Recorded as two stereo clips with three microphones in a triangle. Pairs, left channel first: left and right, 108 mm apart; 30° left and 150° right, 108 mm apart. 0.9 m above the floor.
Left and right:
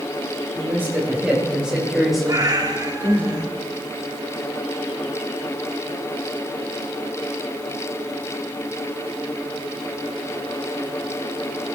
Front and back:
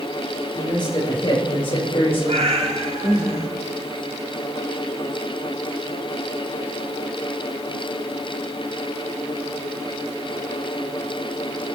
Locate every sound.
0.6 s a man speaking: 20° right, 5 m; by 3.3 s 20° left, 3.5 m
2.3 s a cat meowing: 145° right, 1.5 m